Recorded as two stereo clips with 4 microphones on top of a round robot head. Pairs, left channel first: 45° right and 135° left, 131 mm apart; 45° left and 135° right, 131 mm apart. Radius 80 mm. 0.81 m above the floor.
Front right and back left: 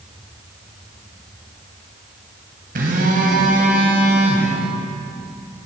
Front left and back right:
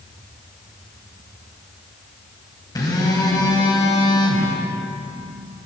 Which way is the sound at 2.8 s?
110° left.